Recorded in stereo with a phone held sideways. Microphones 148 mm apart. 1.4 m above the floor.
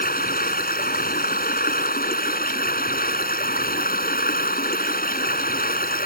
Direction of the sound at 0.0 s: 80° left.